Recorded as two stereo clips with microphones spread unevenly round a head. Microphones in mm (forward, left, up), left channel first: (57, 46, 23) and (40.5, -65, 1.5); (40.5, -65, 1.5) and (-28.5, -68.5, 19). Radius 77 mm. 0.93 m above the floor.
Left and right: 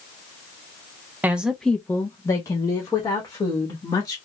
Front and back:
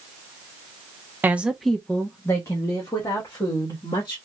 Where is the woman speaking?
115° right, 0.6 m; by 4.2 s 25° left, 2 m.